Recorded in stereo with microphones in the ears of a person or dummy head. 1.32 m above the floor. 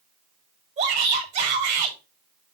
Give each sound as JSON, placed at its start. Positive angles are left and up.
{"t": 0.8, "sound": "a shout", "side_deg": -40, "distance_m": 5.5}